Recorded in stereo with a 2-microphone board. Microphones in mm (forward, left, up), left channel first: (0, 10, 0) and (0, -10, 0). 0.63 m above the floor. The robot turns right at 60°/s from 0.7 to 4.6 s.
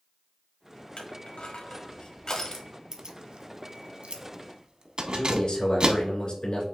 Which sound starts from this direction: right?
Keys jangling, at 2.9 s.